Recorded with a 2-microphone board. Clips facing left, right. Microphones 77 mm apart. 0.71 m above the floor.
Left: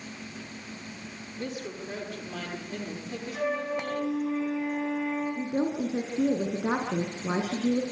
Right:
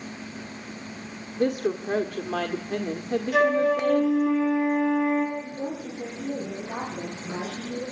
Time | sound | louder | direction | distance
1.4 | a woman speaking | right 12 dB | 65° right (ahead or behind) | 1.6 m
3.3 | a flute | right 9 dB | 70° right (ahead or behind) | 7 m
5.4 | a woman speaking | left 4 dB | 75° left (ahead or behind) | 9 m